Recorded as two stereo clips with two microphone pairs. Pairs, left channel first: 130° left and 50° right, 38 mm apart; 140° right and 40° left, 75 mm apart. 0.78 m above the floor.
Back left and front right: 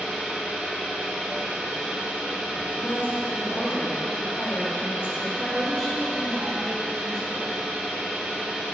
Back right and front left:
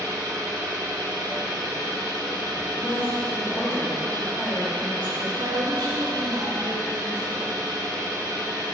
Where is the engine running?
5° left, 3 m.